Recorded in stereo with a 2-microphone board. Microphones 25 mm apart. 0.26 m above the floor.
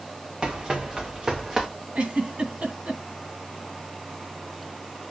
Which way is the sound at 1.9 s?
50° right (ahead or behind).